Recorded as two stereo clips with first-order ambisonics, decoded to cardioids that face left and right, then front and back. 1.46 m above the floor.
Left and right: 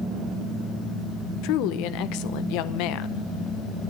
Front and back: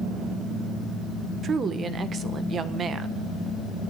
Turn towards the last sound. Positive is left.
turn(degrees=110)